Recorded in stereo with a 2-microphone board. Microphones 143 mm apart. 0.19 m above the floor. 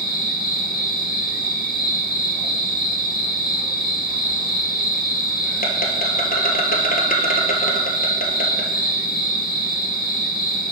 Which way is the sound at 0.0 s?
80° left.